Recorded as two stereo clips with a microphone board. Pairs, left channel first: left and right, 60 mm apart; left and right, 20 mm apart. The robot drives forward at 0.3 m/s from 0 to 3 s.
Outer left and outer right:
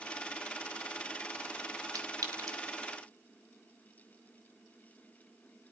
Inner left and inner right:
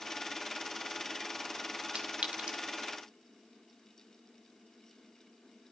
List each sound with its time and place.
1.9 s a clink: 75° right (ahead or behind), 1.6 m; by 2.6 s 80° right, 1.6 m